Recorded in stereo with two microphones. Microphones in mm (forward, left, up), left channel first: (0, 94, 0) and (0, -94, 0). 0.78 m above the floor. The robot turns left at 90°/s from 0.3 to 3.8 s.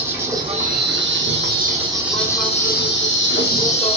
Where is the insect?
15° right, 0.9 m; by 4.0 s 30° left, 0.9 m.